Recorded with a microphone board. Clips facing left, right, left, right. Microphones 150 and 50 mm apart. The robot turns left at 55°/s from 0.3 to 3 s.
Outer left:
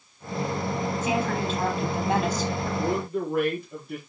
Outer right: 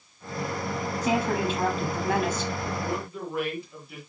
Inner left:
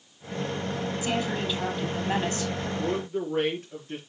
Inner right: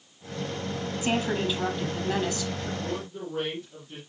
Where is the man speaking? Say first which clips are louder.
Outer left 5 dB, inner left 5 dB; 40° left (ahead or behind), 5.5 m; by 4.0 s 50° left (ahead or behind), 5.5 m.